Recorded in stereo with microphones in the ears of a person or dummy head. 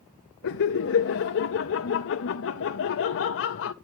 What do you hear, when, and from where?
0.4 s laughter: 65° left (ahead or behind), 0.6 m